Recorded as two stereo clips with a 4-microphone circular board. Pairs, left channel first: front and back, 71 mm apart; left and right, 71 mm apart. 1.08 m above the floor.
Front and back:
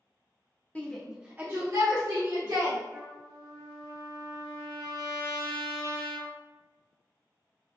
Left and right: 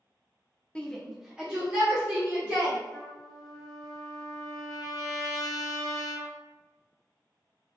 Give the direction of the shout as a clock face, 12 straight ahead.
11 o'clock.